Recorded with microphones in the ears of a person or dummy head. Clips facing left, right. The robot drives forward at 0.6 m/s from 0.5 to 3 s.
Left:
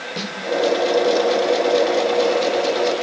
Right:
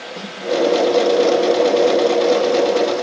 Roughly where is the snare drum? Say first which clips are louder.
Left 5 dB; left.